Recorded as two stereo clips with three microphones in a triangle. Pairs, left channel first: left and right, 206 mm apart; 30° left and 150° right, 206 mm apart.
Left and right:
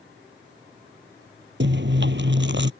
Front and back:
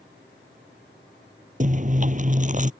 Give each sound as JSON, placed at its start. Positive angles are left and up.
{"t": 1.6, "sound": "chewing", "azimuth_deg": -105}